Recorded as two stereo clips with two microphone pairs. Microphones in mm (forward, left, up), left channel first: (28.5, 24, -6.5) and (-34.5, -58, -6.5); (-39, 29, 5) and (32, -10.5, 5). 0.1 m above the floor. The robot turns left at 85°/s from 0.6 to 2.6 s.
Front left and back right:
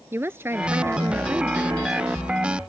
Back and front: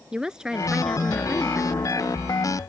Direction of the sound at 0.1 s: 100° right.